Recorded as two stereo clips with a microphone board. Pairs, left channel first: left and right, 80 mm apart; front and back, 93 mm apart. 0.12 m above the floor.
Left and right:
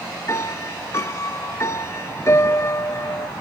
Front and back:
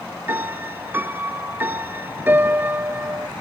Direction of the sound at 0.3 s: 120° left.